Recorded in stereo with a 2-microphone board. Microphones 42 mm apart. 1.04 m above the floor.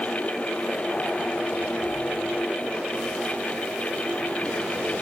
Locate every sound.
Only background noise.